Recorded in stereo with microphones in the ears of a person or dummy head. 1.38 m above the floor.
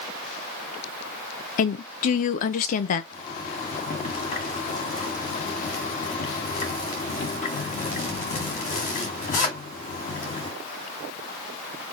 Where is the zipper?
40° left (ahead or behind), 1.8 m.